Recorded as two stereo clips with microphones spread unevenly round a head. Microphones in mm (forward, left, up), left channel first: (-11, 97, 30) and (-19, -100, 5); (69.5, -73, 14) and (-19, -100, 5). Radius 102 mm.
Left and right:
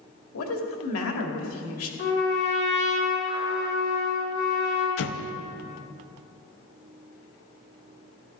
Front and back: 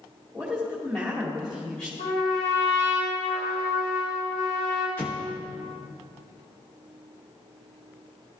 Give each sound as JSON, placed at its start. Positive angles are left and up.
{"t": 0.3, "sound": "a woman speaking", "azimuth_deg": 105, "distance_m": 2.5}
{"t": 2.0, "sound": "a trumpet", "azimuth_deg": 50, "distance_m": 3.5}
{"t": 5.0, "sound": "an explosion", "azimuth_deg": 95, "distance_m": 0.7}